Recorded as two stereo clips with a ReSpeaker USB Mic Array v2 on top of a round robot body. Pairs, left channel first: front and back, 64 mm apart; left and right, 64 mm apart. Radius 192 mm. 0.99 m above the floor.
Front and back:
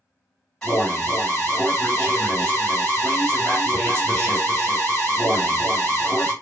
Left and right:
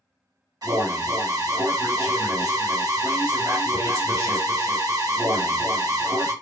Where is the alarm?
80° right, 2.5 m.